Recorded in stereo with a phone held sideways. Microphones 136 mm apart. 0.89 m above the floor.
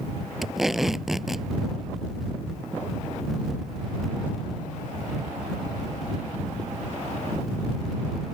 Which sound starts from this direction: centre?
Tape being pulled, at 0.4 s.